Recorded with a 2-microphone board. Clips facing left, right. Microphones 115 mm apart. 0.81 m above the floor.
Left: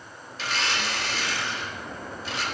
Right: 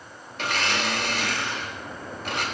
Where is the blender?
55° right (ahead or behind), 1.5 m.